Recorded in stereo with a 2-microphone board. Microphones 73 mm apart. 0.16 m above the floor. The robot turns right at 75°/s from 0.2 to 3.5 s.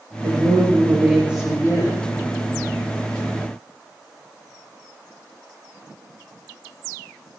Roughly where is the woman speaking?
Right.